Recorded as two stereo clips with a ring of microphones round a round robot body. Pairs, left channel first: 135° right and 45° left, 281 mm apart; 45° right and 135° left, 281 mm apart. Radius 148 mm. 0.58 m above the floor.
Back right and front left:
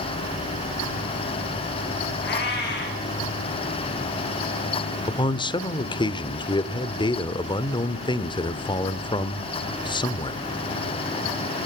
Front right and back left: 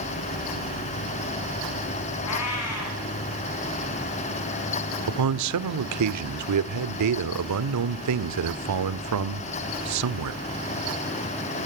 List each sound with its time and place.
2.2 s a cat meowing: 80° right, 10 m
5.1 s a man speaking: 150° left, 1.5 m